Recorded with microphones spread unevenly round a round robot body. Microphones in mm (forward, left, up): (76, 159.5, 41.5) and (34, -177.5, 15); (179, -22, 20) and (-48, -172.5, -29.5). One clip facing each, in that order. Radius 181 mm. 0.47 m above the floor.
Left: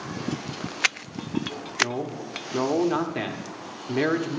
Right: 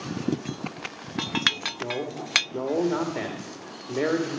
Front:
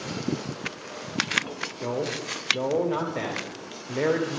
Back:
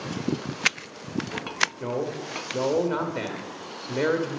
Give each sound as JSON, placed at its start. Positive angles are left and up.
{"t": 1.8, "sound": "a man speaking", "azimuth_deg": 145, "distance_m": 1.0}